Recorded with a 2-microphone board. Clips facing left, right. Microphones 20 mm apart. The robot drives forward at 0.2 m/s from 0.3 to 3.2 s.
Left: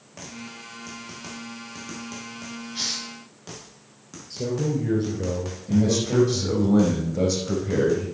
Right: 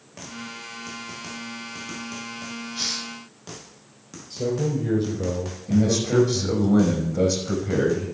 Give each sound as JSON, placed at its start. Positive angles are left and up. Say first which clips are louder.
{"t": 2.8, "sound": "a hiss", "louder": "even", "side_deg": 40, "distance_m": 3.0}
{"t": 4.3, "sound": "a man speaking", "louder": "right 1 dB", "side_deg": 5, "distance_m": 2.5}
{"t": 5.7, "sound": "a man speaking", "louder": "right 1 dB", "side_deg": 0, "distance_m": 4.5}